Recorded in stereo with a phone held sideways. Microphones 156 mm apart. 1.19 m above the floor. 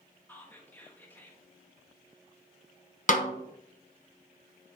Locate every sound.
0.3 s whispering: 15° left (ahead or behind), 1.4 m
3.1 s a snare drum: 55° left (ahead or behind), 0.9 m